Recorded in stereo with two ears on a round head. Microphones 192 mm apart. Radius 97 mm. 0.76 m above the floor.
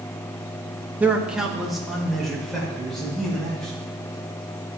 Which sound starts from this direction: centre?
A man speaking, at 1.0 s.